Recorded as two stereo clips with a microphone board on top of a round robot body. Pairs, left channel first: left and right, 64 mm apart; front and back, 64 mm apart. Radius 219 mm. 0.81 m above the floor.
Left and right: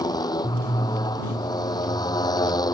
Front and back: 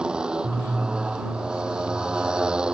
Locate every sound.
0.0 s a motorcycle: 105° left